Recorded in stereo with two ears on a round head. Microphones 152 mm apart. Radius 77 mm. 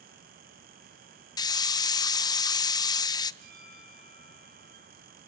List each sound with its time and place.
1.4 s a hiss: 25° left (ahead or behind), 0.5 m
3.4 s a bell: 60° right (ahead or behind), 7.5 m